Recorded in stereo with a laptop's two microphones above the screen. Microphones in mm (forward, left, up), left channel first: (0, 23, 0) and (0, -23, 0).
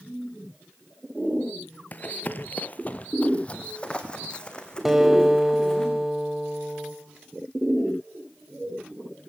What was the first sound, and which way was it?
Running footsteps, 40° left (ahead or behind).